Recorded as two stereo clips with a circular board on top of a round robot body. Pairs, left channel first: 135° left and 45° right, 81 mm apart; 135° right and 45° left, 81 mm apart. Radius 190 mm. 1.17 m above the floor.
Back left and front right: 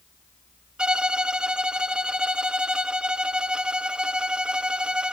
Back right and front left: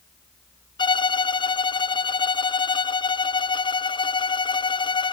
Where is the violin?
125° right, 0.6 m.